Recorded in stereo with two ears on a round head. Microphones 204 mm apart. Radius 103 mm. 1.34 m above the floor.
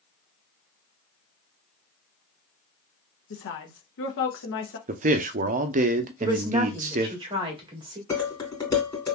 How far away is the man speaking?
About 0.6 m.